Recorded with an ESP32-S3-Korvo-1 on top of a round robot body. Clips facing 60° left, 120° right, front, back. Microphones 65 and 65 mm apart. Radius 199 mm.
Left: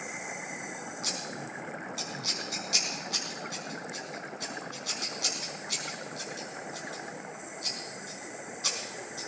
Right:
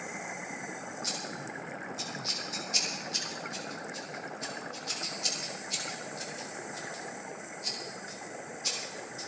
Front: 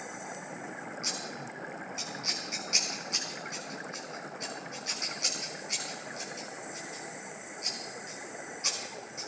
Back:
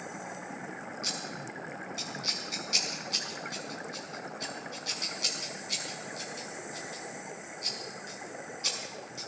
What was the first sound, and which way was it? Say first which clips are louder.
Scissors: left 1 dB, even; 70° left.